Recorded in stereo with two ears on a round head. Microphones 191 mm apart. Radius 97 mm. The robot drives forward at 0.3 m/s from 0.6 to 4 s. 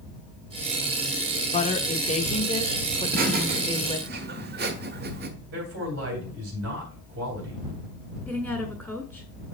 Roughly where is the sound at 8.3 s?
Centre.